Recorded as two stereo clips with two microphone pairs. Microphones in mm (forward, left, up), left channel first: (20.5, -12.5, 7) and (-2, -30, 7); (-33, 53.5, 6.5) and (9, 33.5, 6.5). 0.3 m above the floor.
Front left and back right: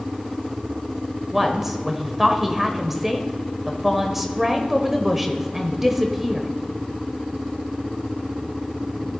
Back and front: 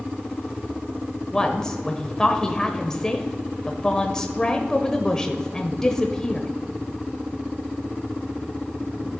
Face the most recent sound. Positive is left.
turn(degrees=155)